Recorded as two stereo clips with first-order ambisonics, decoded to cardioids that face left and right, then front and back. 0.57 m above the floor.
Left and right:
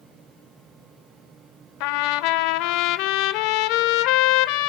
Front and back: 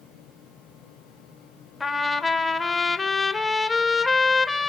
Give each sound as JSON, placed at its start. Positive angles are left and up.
{"t": 1.8, "sound": "a trumpet", "azimuth_deg": 80, "distance_m": 1.1}